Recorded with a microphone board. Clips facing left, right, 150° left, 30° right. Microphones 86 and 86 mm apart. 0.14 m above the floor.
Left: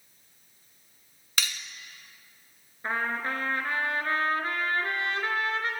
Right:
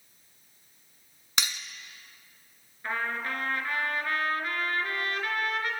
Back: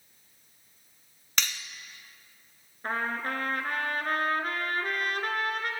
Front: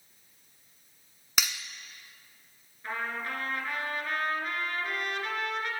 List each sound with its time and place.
1.4 s cutlery clinking: 90° right, 0.6 m
2.8 s a trumpet: 140° left, 1.2 m